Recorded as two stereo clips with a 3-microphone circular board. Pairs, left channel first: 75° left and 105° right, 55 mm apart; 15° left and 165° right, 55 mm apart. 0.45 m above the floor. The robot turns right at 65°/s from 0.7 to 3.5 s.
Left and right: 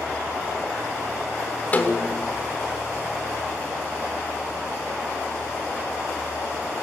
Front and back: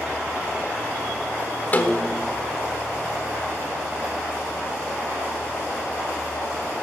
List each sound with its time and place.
1.7 s a snare drum: 40° left, 1.1 m; by 2.4 s 80° left, 1.1 m